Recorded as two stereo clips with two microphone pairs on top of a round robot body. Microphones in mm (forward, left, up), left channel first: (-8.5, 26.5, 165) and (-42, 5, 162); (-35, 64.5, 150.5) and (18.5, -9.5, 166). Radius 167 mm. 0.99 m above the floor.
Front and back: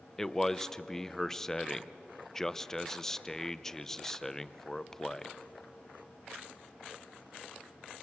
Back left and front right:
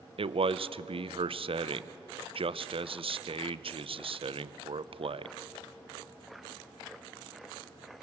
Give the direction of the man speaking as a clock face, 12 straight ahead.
2 o'clock.